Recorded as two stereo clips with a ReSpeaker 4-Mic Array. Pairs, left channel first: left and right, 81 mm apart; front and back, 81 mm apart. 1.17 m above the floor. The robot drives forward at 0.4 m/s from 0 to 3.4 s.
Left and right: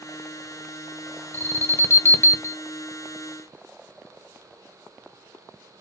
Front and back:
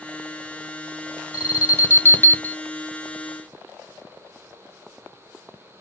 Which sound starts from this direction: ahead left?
An alarm, at 1.3 s.